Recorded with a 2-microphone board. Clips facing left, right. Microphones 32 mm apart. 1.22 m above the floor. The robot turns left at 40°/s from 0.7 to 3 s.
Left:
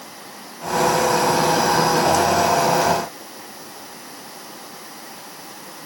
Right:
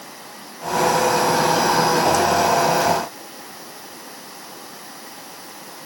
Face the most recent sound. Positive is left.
No sound to turn to.